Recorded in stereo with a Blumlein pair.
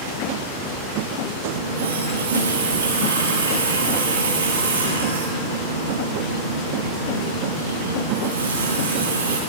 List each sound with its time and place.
1.5 s a running tap: 70° right, 6.5 m